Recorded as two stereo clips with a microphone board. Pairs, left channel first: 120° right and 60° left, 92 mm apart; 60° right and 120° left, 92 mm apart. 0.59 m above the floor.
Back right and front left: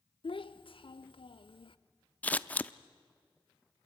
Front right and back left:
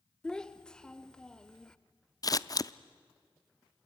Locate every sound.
0.2 s a child speaking: 140° right, 0.8 m
2.2 s scissors: 55° right, 0.5 m